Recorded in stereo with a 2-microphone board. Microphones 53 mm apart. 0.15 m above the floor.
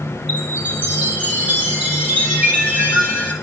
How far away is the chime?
About 3 m.